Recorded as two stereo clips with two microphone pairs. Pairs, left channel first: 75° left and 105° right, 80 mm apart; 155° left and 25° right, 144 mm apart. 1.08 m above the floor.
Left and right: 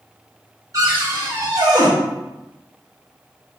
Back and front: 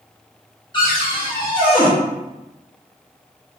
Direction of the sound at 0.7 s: 150° right.